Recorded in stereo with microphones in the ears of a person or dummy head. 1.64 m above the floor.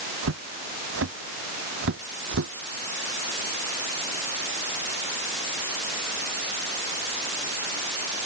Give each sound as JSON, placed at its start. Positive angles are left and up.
{"t": 0.2, "sound": "footsteps", "side_deg": -75}